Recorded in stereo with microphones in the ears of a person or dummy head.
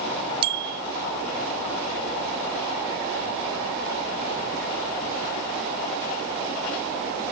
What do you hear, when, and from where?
0.4 s a bicycle bell: 30° right (ahead or behind)